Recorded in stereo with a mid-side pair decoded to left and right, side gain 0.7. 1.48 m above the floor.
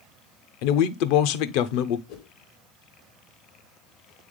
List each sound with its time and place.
0.6 s a man speaking: 70° left, 0.7 m
2.1 s a whoosh: 65° left, 1.1 m